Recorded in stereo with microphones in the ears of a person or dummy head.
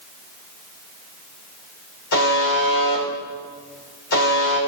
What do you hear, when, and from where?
2.1 s a buzzer: 65° left (ahead or behind), 4.5 m